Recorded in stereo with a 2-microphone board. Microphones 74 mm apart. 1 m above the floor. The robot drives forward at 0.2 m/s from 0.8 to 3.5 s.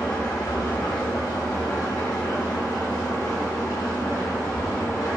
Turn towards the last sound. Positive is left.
turn(degrees=55)  # may be behind; listen again after turning